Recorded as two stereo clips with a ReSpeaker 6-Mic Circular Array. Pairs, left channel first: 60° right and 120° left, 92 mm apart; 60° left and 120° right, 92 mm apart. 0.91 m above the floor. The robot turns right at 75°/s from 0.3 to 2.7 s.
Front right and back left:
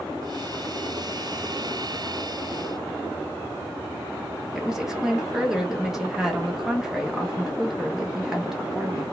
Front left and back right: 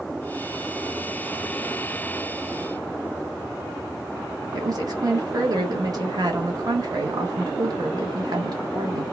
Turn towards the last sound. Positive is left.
turn(degrees=-155)